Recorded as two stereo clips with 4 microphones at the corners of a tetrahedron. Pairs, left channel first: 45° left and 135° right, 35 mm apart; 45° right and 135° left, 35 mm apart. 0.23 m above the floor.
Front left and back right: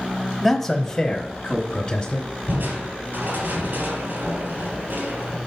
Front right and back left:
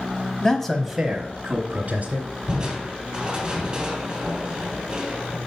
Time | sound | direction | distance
0.4 | a man speaking | 30° right | 1.0 m
2.5 | crushing | 160° right | 2.5 m